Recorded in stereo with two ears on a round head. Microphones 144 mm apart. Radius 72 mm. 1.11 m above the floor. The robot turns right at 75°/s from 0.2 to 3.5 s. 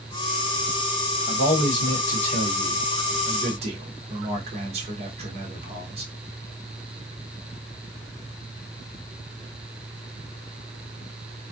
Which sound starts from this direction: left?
A man speaking, at 1.3 s.